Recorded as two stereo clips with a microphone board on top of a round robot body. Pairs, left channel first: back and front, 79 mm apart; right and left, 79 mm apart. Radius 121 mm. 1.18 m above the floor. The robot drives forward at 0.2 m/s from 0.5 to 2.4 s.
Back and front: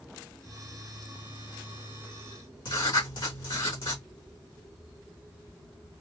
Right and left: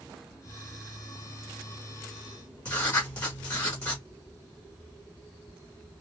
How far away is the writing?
About 2 m.